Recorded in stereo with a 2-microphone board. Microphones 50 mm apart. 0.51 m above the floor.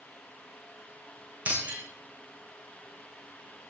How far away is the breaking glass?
About 3.5 m.